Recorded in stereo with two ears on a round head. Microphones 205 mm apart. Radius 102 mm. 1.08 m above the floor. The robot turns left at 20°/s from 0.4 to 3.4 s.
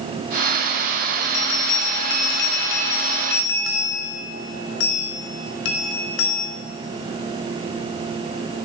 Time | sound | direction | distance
1.2 | a bell | 105° left | 3 m